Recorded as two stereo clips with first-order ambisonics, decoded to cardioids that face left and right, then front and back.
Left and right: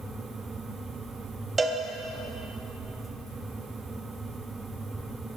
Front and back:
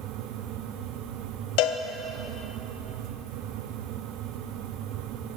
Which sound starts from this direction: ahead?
A cowbell, at 1.6 s.